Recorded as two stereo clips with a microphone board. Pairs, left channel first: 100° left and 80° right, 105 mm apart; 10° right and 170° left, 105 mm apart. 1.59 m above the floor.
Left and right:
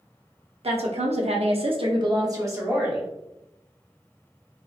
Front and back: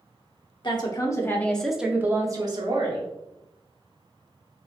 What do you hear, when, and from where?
0.6 s a woman speaking: 55° right, 0.9 m; by 3.1 s 155° right, 1.0 m